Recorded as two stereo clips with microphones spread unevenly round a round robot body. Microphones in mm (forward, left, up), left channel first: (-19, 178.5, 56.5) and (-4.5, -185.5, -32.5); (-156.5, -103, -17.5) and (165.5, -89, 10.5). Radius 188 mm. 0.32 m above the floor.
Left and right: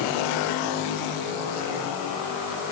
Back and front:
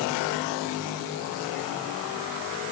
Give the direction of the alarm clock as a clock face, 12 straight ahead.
I don't hear an alarm clock.